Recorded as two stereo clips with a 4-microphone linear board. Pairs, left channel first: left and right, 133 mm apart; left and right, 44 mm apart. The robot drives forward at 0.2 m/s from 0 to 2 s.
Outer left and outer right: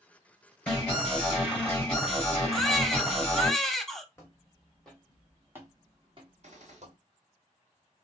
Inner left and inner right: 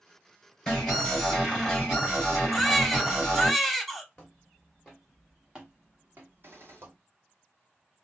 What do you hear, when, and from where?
0.7 s an alarm: 5° left (ahead or behind), 2.5 m
2.5 s a baby crying: centre (ahead or behind), 0.6 m
4.2 s footsteps: 20° left (ahead or behind), 1.5 m; by 7.0 s 65° right (ahead or behind), 1.3 m
6.4 s a gunshot: 60° right (ahead or behind), 1.2 m